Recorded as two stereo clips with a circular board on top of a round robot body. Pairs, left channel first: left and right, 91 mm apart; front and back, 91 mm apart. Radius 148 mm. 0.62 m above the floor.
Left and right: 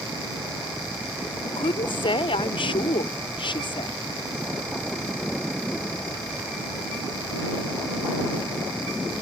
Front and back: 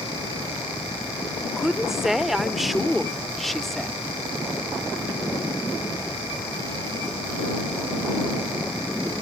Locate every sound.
1.6 s a woman speaking: 95° left; by 3.9 s 85° left